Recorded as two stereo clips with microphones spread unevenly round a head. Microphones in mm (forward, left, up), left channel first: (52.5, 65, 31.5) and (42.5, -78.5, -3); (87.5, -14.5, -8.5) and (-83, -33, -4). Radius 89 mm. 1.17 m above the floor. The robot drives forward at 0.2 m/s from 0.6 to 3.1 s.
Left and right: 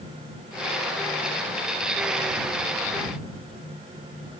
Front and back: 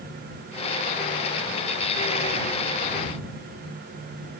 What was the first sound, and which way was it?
Only background noise.